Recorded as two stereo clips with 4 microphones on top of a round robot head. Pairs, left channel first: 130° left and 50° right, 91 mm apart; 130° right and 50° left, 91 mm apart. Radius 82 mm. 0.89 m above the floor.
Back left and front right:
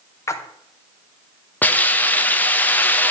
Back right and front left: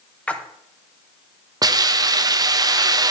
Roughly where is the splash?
Behind.